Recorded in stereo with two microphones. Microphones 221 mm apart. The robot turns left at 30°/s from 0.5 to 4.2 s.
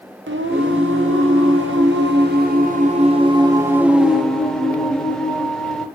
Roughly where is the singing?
Right.